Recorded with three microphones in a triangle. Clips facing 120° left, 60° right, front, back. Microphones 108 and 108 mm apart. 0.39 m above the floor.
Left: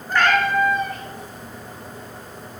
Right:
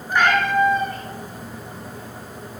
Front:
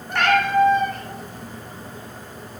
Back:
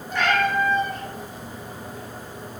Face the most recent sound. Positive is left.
turn(degrees=-85)